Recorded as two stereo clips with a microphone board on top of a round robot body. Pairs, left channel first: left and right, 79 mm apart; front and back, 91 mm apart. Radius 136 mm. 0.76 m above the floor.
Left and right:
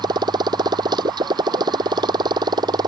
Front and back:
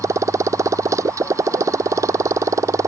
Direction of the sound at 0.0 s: 125° right.